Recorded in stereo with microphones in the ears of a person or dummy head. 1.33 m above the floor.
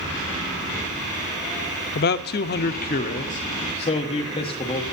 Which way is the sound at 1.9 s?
45° left (ahead or behind).